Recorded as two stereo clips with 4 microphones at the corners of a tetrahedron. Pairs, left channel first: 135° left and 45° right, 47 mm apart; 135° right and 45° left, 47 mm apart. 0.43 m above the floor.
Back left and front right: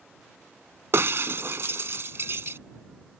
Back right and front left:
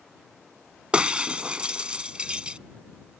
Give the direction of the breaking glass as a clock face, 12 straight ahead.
1 o'clock.